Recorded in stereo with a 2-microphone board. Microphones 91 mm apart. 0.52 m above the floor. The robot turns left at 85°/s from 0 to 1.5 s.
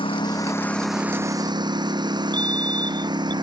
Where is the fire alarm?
15° left (ahead or behind).